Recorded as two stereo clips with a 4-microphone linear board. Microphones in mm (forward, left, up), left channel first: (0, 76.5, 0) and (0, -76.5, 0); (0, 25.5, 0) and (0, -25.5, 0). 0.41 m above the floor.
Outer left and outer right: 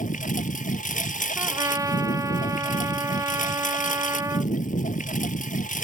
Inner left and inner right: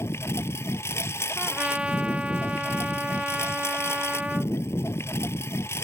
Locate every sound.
0.0 s a lawn mower: 60° left (ahead or behind)
1.4 s a trumpet: 20° right (ahead or behind)